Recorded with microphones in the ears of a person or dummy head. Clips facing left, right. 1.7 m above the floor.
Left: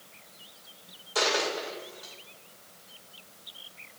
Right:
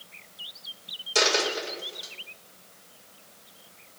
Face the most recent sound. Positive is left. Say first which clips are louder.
# right 2 dB
turn(degrees=-40)  # may be behind; listen again after turning